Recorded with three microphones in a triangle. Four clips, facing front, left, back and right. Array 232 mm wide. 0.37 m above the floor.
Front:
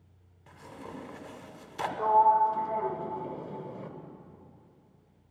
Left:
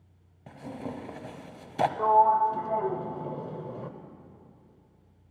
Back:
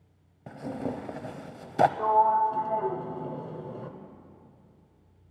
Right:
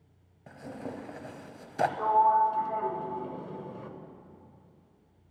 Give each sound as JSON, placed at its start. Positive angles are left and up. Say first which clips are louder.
{"t": 0.5, "sound": "tearing paper", "louder": "left 2 dB, back 11 dB", "azimuth_deg": 165, "distance_m": 0.7}
{"t": 2.0, "sound": "a sliding door", "louder": "left 2 dB, front 6 dB", "azimuth_deg": 115, "distance_m": 1.0}